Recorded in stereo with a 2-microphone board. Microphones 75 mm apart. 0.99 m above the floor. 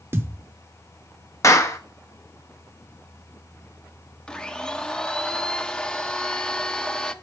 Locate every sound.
0.1 s a thud: 35° right (ahead or behind), 0.7 m
1.4 s a clap: 40° left (ahead or behind), 0.9 m
4.3 s a blender: 10° left (ahead or behind), 0.6 m